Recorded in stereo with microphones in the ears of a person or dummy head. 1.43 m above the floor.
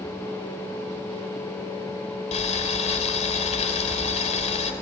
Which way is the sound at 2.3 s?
35° left (ahead or behind).